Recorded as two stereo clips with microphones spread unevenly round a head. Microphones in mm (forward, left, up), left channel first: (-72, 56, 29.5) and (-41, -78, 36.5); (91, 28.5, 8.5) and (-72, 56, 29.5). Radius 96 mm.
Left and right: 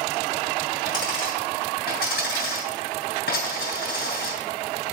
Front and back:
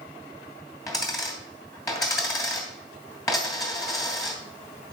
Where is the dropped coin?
60° left, 2.5 m.